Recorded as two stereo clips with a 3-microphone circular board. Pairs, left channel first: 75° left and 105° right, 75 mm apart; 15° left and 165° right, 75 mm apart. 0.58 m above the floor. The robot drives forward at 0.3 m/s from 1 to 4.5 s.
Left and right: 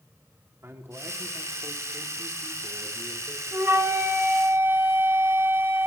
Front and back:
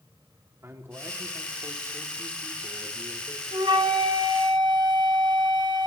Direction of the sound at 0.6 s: 140° right.